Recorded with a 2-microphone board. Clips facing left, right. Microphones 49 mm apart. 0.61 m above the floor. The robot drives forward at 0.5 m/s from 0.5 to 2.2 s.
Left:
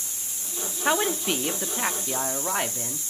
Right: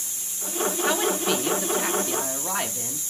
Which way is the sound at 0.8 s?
15° left (ahead or behind).